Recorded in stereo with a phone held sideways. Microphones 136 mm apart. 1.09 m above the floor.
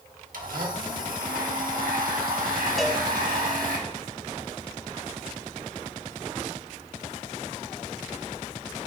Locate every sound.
0.3 s a blender: 75° right (ahead or behind), 1.4 m
2.8 s a cowbell: centre (ahead or behind), 1.2 m